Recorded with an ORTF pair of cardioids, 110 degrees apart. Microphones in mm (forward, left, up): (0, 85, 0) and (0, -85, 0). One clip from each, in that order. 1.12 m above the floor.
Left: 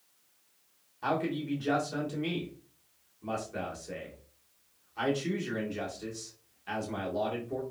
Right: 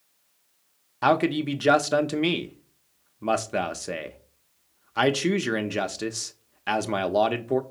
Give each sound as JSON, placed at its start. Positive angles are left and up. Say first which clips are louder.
{"t": 1.0, "sound": "a man speaking", "louder": "right 10 dB", "azimuth_deg": -70, "distance_m": 0.7}